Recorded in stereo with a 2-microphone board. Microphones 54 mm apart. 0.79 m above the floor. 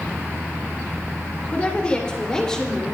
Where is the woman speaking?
25° left (ahead or behind), 3 m; by 2.9 s 5° left (ahead or behind), 2.5 m.